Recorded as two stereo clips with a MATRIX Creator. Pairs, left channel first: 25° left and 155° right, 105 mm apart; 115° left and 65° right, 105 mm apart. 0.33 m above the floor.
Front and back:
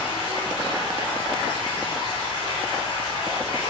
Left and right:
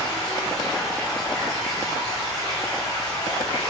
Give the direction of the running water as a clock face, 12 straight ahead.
10 o'clock.